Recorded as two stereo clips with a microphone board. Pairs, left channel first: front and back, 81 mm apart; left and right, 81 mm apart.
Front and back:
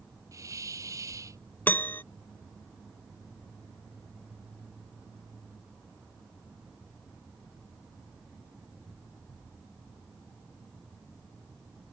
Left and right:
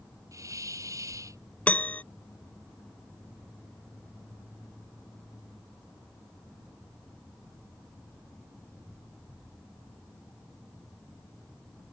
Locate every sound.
0.3 s a hiss: 135° right
1.7 s a piano: 35° left